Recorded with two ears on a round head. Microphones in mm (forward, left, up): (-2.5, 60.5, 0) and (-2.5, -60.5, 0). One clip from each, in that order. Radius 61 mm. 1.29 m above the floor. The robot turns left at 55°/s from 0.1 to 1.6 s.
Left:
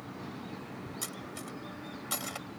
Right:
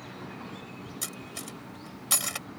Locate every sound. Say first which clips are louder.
1.0 s cutlery clinking: right 4 dB; 15° right (ahead or behind); by 2.5 s 45° right (ahead or behind)